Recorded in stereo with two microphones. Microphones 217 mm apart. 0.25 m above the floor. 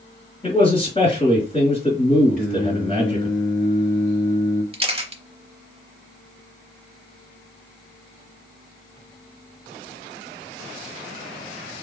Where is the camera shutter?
25° right (ahead or behind), 0.7 m.